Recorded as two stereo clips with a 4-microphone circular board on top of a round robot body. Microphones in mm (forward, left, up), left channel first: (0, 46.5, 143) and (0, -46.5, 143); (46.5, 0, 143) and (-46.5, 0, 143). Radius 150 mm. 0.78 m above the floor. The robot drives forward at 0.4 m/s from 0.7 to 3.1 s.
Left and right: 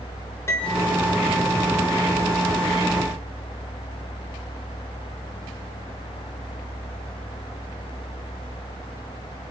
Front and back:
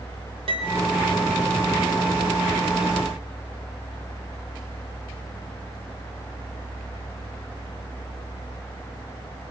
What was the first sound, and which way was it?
A piano, 155° left.